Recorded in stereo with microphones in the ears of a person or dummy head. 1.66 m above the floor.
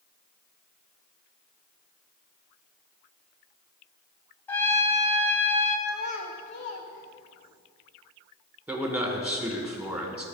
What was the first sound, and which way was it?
A trumpet, 20° left (ahead or behind).